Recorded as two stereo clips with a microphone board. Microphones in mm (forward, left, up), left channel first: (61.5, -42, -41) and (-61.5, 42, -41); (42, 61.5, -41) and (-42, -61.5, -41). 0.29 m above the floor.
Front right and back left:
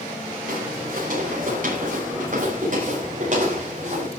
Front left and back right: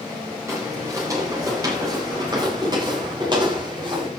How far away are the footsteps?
About 7.5 m.